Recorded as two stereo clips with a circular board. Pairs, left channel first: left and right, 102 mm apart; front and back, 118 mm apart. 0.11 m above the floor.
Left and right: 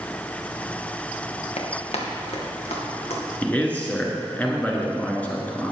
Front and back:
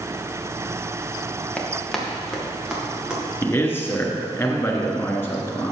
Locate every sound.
1.6 s running footsteps: 80° left, 1.8 m; by 3.2 s 100° left, 4 m
3.4 s a man speaking: 35° left, 1.3 m